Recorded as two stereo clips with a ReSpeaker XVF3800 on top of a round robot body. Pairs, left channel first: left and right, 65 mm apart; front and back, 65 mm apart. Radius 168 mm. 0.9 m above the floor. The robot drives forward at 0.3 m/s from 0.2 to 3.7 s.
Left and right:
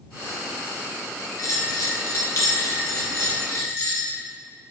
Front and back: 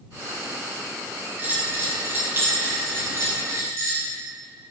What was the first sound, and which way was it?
A bell, 120° left.